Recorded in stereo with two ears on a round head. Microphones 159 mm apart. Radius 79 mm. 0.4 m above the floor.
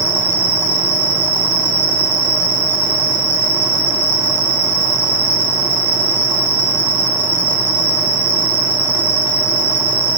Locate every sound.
0.0 s an insect: 10° right (ahead or behind), 4 m